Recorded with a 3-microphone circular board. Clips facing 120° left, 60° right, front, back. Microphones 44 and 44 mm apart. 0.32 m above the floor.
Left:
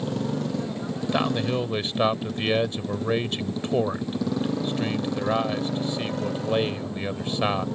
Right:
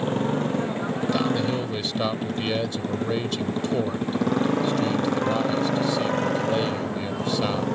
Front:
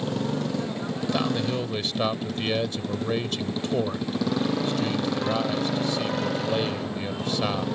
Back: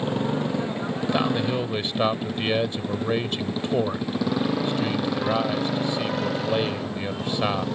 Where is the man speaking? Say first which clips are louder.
Left 2 dB, back 2 dB; 135° left.